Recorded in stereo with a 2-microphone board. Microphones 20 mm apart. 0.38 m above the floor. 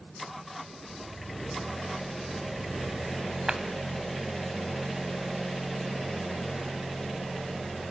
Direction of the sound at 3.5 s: 30° right (ahead or behind).